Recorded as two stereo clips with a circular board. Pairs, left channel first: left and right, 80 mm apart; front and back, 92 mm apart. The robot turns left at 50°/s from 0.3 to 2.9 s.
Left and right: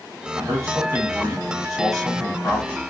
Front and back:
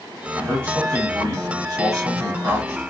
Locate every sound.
0.4 s a man speaking: 110° right, 1.5 m; by 2.8 s 130° left, 1.5 m